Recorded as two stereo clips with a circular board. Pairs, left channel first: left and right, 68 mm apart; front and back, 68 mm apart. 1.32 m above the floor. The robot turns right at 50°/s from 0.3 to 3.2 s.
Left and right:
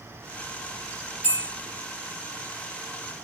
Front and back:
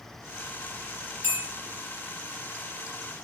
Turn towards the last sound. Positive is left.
turn(degrees=-45)